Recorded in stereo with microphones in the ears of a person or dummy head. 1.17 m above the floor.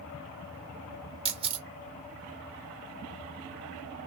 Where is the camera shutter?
25° right (ahead or behind), 1.4 m.